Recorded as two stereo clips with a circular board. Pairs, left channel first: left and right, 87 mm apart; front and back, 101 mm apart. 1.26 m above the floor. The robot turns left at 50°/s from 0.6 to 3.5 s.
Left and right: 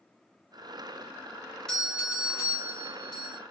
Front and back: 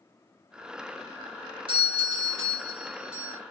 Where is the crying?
No crying in this recording.